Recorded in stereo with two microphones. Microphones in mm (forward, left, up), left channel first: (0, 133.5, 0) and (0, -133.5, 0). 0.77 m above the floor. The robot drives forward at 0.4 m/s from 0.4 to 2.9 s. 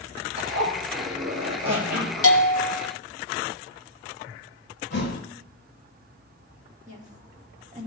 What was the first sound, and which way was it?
A zipper, 60° right (ahead or behind).